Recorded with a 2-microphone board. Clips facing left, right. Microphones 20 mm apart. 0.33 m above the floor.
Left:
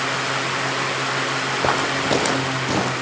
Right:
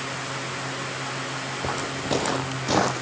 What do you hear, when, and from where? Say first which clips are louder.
1.6 s footsteps: left 8 dB; 45° left (ahead or behind), 0.6 m; by 3.0 s 30° right (ahead or behind), 0.8 m